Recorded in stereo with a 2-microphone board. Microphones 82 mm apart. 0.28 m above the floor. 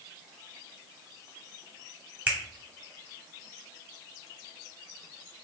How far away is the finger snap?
About 1.3 m.